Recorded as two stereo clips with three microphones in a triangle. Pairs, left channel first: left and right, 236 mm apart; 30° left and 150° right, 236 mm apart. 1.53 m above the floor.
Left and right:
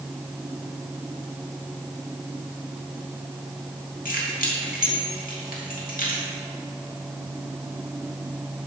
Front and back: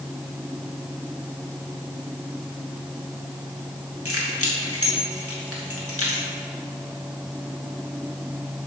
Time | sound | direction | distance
4.0 | keys jangling | 40° left | 1.8 m